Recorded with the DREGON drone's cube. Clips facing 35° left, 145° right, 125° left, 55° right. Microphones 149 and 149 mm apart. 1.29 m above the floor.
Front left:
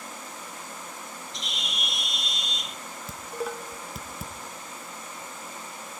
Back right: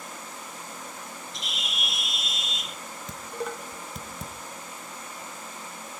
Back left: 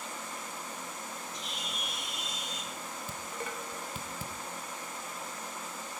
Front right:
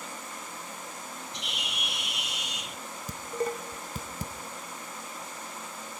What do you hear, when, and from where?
1.3 s a bird: 60° right, 0.8 m
3.1 s dishes clattering: 50° right, 0.5 m